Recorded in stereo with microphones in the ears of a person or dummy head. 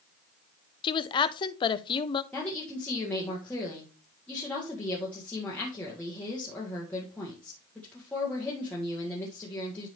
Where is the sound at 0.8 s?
25° left (ahead or behind), 0.6 m.